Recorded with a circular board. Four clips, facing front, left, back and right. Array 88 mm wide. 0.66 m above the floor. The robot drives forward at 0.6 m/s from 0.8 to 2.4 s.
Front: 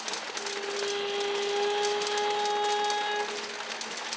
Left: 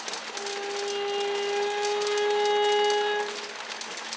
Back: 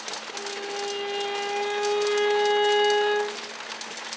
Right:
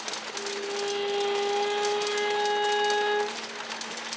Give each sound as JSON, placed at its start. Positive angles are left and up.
{"t": 0.3, "sound": "a violin", "azimuth_deg": 165, "distance_m": 1.7}